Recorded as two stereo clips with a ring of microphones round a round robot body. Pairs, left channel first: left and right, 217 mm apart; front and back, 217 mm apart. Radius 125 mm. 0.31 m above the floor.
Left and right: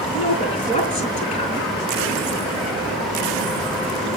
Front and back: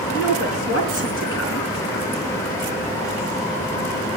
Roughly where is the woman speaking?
Ahead left.